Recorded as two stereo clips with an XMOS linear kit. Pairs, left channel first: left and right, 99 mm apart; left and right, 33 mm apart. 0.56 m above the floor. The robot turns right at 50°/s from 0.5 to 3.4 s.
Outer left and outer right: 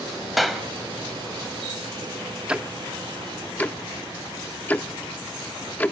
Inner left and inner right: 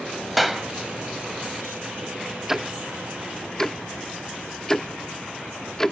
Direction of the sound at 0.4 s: Centre (ahead or behind).